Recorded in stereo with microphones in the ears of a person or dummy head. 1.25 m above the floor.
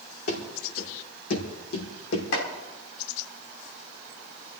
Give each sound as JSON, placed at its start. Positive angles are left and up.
{"t": 0.3, "sound": "running footsteps", "side_deg": 55, "distance_m": 5.0}
{"t": 2.3, "sound": "chopping", "side_deg": 70, "distance_m": 3.5}